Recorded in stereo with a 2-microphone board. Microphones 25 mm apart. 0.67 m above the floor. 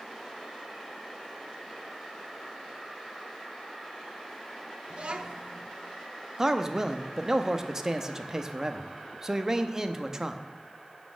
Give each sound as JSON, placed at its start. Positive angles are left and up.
{"t": 4.9, "sound": "a child speaking", "side_deg": -55, "distance_m": 0.8}
{"t": 6.4, "sound": "a man speaking", "side_deg": -25, "distance_m": 0.5}